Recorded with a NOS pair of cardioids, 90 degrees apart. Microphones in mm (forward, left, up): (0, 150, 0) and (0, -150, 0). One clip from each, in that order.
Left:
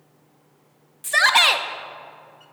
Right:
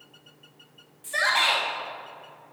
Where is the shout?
60° left, 1.0 m.